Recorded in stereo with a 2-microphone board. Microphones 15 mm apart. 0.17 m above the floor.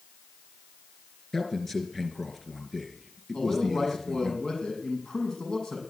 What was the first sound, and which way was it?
A man speaking, 25° left (ahead or behind).